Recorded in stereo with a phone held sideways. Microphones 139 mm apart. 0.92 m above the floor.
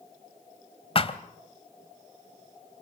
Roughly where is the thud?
Left.